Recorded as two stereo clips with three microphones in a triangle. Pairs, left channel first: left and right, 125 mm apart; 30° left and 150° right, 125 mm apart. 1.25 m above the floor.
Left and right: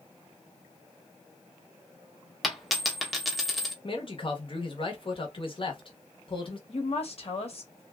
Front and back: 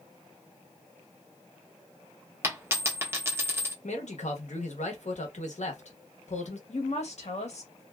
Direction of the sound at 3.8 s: 45° left.